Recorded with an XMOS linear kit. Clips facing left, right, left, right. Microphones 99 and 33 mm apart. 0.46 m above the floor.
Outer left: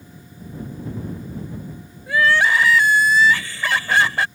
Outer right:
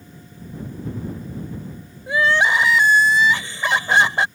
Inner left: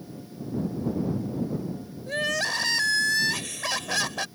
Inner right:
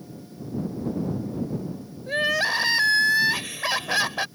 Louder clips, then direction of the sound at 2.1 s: Outer left 1 dB, inner right 4 dB; 20° right (ahead or behind).